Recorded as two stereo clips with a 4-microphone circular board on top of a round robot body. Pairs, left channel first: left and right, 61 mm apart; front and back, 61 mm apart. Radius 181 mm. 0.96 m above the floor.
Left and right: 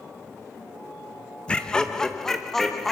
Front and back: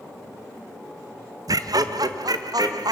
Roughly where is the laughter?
Behind.